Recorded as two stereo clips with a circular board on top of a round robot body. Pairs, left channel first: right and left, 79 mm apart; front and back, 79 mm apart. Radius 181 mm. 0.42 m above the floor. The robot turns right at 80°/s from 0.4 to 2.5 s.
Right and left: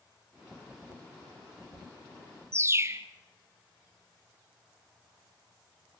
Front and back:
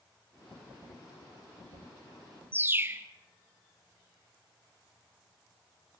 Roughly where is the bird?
Behind left.